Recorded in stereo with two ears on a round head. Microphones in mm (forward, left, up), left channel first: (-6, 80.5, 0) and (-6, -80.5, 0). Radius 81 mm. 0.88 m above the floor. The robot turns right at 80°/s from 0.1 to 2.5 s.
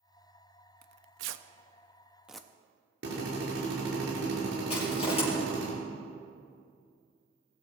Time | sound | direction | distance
0.8 | tearing paper | 55° right (ahead or behind) | 0.6 m
3.0 | a drill | 65° right (ahead or behind) | 5 m
4.7 | crushing | 30° left (ahead or behind) | 4.5 m